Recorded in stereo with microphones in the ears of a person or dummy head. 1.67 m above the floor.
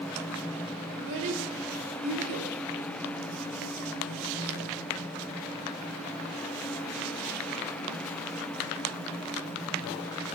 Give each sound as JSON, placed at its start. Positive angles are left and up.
{"t": 0.9, "sound": "a child speaking", "side_deg": -70, "distance_m": 3.0}